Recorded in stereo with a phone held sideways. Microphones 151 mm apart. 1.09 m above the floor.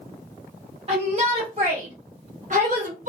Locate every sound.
0.9 s a shout: 35° right (ahead or behind), 1.5 m; by 3.1 s 50° right (ahead or behind), 1.1 m